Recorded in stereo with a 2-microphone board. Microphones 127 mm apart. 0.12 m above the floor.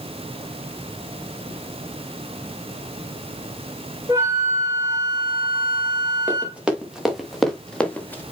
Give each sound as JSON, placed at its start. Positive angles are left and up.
{"t": 4.1, "sound": "a flute", "side_deg": -20, "distance_m": 3.0}
{"t": 6.3, "sound": "running footsteps", "side_deg": -10, "distance_m": 3.5}